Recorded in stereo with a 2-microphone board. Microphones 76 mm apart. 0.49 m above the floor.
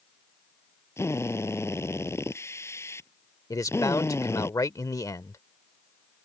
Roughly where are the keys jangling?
No keys jangling in this recording.